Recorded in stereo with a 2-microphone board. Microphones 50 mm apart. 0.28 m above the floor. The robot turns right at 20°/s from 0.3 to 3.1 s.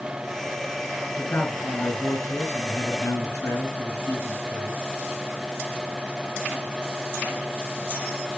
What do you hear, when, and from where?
1.2 s a man speaking: 45° left, 3 m; by 4.8 s 85° left, 3 m